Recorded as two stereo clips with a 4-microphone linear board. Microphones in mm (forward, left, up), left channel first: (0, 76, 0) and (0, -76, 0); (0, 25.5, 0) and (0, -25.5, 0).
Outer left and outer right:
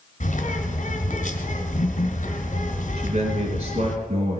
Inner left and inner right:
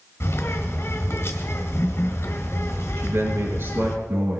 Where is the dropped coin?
No dropped coin in this recording.